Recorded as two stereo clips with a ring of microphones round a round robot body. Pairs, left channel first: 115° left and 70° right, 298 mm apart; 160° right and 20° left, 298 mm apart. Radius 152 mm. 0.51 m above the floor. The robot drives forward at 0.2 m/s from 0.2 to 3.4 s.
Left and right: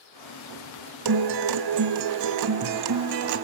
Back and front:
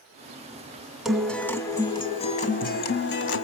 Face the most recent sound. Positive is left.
turn(degrees=-110)